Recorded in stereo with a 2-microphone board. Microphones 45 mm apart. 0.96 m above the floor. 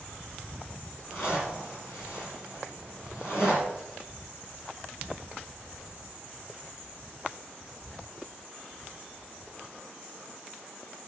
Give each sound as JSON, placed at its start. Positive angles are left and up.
{"t": 1.1, "sound": "a zipper", "side_deg": 55, "distance_m": 5.0}